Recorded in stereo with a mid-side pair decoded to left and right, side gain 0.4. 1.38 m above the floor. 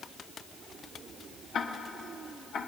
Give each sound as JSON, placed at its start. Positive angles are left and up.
{"t": 1.5, "sound": "ticking", "azimuth_deg": 65, "distance_m": 1.1}